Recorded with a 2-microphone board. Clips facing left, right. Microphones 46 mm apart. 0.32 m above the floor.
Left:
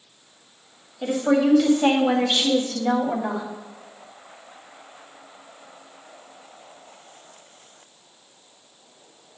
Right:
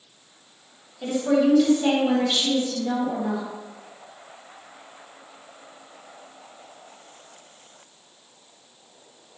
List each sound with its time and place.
1.0 s a woman speaking: 25° left (ahead or behind), 1.9 m; by 3.5 s 50° left (ahead or behind), 2 m